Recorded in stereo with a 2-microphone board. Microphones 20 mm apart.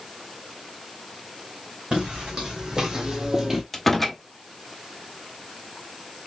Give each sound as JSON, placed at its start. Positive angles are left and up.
{"t": 1.9, "sound": "footsteps", "side_deg": -45, "distance_m": 2.5}
{"t": 3.7, "sound": "a door slam", "side_deg": 10, "distance_m": 0.8}